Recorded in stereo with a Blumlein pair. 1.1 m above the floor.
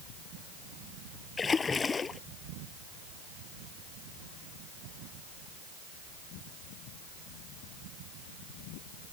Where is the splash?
15° left.